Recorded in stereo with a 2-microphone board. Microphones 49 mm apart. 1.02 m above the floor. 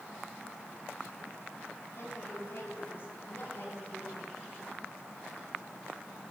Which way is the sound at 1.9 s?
55° left (ahead or behind).